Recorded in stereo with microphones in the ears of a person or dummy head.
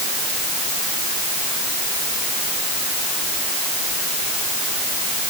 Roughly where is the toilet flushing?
No toilet flushing in this recording.